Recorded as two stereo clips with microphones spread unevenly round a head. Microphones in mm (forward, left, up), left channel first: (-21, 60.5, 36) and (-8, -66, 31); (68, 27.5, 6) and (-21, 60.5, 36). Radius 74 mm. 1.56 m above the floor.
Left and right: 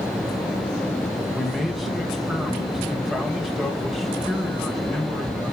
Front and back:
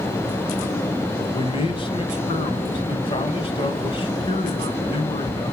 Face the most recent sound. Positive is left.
turn(degrees=5)